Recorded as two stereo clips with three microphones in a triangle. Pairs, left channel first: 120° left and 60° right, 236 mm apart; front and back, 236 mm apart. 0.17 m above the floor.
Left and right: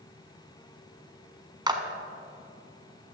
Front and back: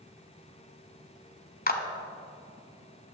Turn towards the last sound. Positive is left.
turn(degrees=5)